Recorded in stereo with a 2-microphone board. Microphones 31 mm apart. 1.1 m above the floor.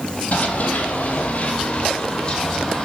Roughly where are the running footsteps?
Left.